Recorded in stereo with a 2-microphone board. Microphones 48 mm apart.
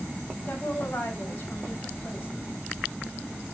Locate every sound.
0.5 s a woman speaking: 35° left (ahead or behind), 4 m